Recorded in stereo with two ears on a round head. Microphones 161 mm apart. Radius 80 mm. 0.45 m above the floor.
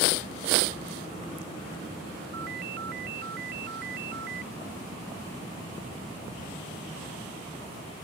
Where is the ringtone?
60° right (ahead or behind).